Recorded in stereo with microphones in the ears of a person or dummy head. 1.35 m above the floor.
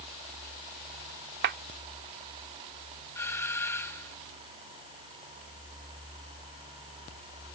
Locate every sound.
1.4 s a clap: 60° right (ahead or behind)
3.1 s a doorbell: 15° left (ahead or behind)